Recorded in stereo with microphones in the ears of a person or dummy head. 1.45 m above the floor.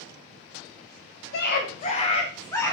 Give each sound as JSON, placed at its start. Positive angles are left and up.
{"t": 1.3, "sound": "a scream", "side_deg": 60, "distance_m": 0.8}